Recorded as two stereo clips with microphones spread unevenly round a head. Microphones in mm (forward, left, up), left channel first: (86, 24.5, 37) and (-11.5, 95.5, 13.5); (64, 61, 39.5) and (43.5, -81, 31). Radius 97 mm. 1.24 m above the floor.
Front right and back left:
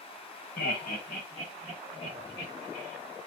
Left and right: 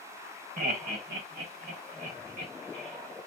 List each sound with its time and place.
0.6 s laughter: 75° right, 1.2 m; by 3.0 s 110° right, 3.5 m